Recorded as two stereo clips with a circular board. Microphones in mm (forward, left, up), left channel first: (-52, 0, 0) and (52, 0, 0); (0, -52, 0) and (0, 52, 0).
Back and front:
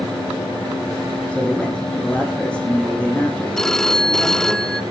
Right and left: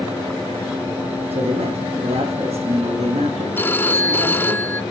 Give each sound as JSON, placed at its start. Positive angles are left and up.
{"t": 1.3, "sound": "a man speaking", "azimuth_deg": 100, "distance_m": 7.5}
{"t": 3.6, "sound": "a phone ringing", "azimuth_deg": -105, "distance_m": 0.7}